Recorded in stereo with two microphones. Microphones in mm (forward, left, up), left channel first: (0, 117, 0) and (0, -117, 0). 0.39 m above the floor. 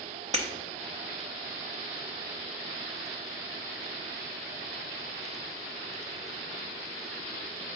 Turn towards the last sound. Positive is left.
turn(degrees=-30)  # may be behind; listen again after turning